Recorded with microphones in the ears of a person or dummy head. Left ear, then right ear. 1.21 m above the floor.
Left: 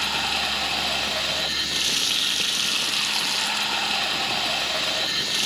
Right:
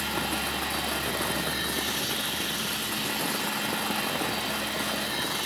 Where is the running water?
65° left (ahead or behind), 0.7 m.